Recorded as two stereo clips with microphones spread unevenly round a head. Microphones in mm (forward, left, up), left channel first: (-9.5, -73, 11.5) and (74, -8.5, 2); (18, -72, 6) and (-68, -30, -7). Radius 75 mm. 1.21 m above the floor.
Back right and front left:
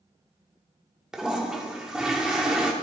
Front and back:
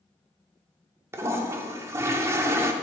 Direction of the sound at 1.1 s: 125° left.